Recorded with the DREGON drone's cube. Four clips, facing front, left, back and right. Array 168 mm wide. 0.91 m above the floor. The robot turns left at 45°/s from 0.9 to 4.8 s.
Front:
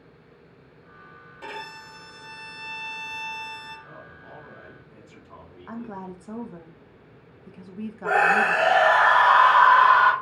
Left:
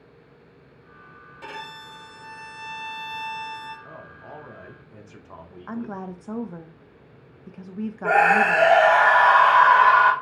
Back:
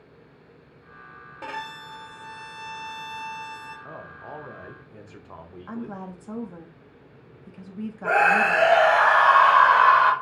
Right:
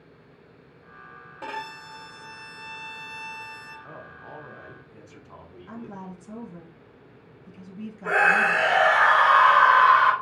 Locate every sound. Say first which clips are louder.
1.4 s a violin: right 3 dB, back 3 dB; 135° right, 2 m; by 3.8 s 120° left, 2 m
3.9 s a man speaking: left 1 dB, back 5 dB; 165° right, 0.7 m; by 6.0 s 150° left, 0.7 m
5.7 s a woman speaking: left 7 dB, back 1 dB; 90° left, 0.7 m
8.0 s a scream: left 4 dB, back 1 dB; 75° left, 3.5 m